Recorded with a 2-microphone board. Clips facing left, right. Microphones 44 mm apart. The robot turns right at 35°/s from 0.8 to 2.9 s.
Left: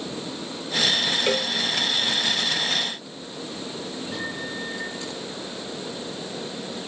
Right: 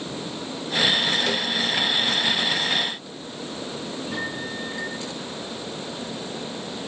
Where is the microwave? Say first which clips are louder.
Right 1 dB; 10° right (ahead or behind), 8.5 m.